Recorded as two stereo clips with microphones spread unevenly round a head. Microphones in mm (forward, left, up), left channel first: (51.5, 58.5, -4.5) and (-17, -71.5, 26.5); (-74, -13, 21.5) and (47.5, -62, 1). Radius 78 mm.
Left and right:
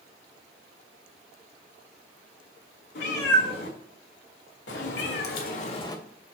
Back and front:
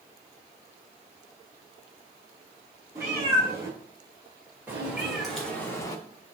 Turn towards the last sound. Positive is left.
turn(degrees=175)